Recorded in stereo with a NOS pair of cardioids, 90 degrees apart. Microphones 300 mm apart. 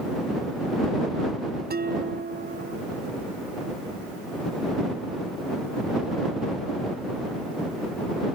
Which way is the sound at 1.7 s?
30° right.